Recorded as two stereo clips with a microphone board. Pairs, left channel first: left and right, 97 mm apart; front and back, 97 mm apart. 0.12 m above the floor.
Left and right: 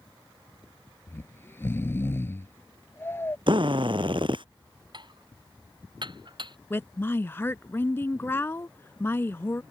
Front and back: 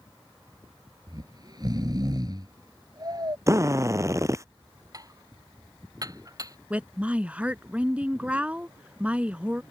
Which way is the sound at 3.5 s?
120° right.